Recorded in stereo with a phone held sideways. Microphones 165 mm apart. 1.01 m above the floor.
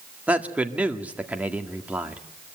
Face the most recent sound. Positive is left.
turn(degrees=-10)  # may be behind; listen again after turning